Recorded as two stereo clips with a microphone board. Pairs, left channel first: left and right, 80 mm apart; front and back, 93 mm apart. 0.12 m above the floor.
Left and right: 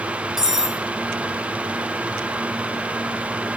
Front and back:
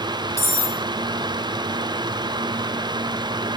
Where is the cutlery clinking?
15° right, 0.9 m.